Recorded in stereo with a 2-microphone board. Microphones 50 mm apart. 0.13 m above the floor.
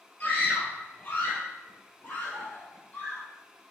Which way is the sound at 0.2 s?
40° left (ahead or behind).